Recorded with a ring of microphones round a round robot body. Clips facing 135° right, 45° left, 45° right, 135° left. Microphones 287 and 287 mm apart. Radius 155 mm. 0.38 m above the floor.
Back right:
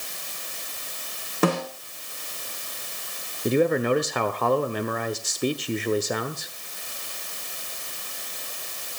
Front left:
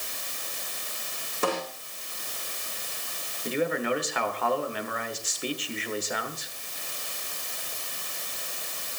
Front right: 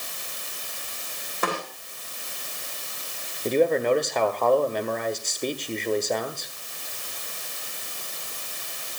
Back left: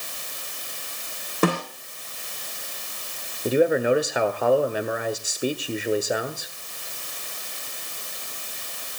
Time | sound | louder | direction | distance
1.4 | a snare drum | back right 6 dB, back left 8 dB | 170° right | 8 m
3.5 | a man speaking | back right 7 dB, back left 1 dB | 145° right | 1.3 m